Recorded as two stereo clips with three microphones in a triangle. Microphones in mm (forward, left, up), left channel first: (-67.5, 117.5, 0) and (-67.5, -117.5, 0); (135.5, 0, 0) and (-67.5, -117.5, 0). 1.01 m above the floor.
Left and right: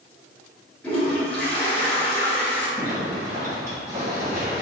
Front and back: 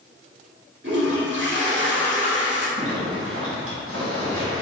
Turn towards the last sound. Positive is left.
turn(degrees=-165)